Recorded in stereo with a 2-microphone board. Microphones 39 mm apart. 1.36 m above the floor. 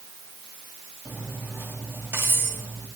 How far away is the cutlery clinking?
About 5.5 m.